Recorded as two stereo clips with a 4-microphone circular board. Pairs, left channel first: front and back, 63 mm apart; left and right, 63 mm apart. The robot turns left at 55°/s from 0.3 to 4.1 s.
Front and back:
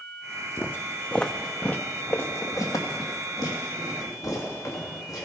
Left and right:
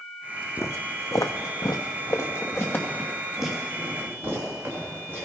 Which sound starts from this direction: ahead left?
Footsteps, at 0.6 s.